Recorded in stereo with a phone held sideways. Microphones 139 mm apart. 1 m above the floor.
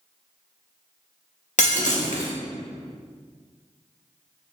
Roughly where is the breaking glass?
Left.